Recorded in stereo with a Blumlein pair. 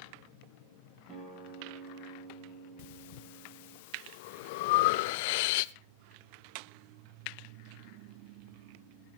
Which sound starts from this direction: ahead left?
Breathing, at 2.8 s.